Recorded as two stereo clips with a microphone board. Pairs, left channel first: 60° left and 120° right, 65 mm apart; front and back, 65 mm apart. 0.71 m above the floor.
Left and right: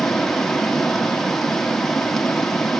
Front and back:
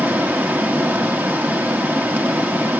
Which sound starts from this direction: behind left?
Running water, at 0.0 s.